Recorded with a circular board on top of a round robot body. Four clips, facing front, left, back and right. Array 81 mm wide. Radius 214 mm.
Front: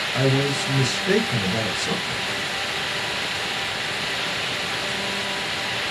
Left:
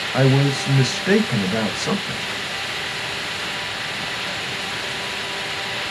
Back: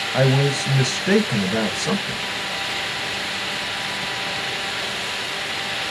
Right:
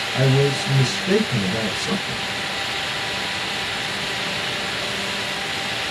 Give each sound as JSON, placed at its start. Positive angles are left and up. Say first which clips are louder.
{"t": 0.1, "sound": "a man speaking", "louder": "left 1 dB, back 3 dB", "azimuth_deg": 130, "distance_m": 1.0}